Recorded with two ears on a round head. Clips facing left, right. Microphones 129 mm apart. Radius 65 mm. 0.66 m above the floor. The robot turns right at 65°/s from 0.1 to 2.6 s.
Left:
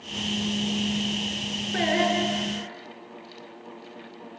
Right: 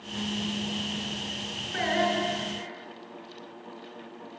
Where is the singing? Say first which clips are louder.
Left 3 dB; 140° left, 7.5 m; by 2.7 s 165° right, 7.5 m.